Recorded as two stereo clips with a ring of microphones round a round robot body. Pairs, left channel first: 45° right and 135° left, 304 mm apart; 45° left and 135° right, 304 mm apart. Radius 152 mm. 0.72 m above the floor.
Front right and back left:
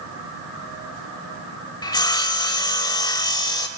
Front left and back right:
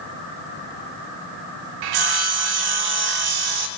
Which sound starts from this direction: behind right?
Sawing, at 1.8 s.